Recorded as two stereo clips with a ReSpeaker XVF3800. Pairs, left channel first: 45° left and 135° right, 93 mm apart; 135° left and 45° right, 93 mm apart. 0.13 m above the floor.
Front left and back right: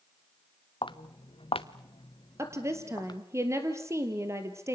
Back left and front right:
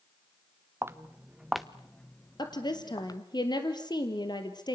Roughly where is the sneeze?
No sneeze in this recording.